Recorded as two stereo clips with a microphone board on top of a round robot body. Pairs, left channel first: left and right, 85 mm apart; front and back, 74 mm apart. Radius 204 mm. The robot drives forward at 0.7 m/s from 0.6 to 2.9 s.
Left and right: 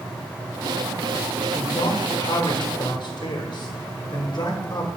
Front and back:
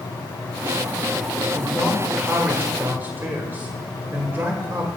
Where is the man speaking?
75° left, 1.3 m; by 4.9 s 125° left, 1.5 m.